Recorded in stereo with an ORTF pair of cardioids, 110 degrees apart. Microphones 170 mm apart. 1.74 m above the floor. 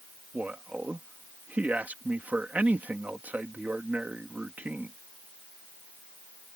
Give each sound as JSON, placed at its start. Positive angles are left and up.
{"t": 0.3, "sound": "a man speaking", "azimuth_deg": -10}